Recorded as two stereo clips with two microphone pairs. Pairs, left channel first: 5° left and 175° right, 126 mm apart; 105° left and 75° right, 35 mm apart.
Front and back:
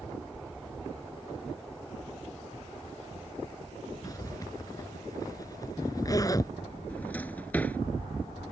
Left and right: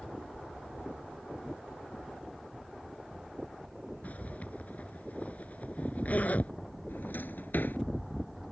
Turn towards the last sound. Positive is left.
turn(degrees=80)